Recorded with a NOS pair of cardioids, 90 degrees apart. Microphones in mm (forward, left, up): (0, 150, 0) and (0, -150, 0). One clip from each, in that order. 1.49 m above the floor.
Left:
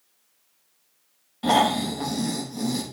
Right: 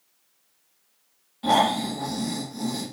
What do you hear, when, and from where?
1.4 s snoring: 30° left, 3 m